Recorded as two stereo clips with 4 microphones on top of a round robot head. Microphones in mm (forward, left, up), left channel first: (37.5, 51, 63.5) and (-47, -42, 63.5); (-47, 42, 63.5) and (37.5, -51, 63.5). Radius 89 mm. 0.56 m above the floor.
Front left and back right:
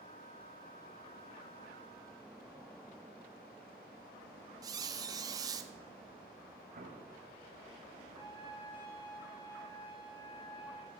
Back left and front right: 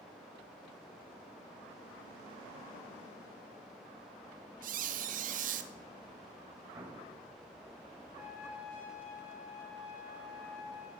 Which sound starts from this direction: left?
A trumpet, at 8.1 s.